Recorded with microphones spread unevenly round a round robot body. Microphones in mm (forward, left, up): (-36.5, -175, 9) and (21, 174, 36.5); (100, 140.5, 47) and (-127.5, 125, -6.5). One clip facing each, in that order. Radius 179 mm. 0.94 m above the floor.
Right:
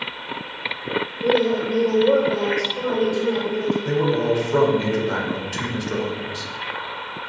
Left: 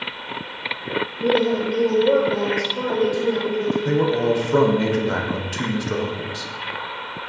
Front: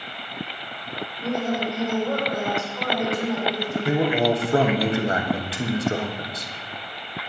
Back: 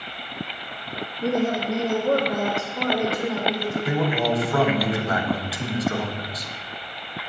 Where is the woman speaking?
145° left, 1.3 m; by 3.8 s 140° left, 3 m.